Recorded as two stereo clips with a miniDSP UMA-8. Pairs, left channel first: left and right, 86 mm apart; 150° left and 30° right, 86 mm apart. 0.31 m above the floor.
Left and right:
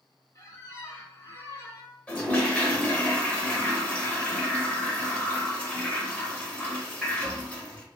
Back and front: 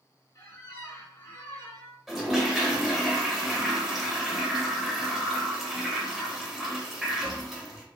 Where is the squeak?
120° left, 1.0 m.